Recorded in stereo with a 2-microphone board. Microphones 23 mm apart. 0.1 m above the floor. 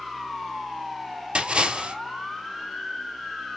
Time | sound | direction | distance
1.4 | a splash | 50° right (ahead or behind) | 1.2 m